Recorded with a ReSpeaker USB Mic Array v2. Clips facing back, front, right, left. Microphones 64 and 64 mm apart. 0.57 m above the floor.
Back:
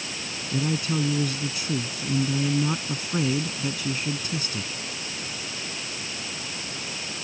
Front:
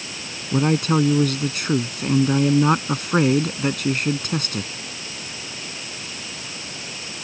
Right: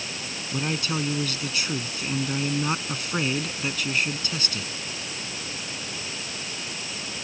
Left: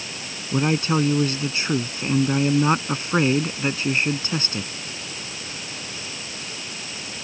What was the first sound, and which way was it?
A man speaking, 30° left.